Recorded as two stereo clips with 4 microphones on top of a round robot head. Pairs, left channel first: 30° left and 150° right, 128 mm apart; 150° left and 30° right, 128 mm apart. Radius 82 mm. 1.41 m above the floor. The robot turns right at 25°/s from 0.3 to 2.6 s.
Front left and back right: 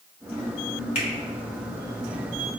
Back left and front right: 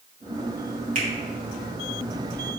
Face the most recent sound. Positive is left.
turn(degrees=40)